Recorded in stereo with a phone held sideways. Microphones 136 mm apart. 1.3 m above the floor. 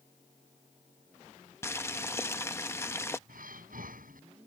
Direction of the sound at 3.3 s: 85° right.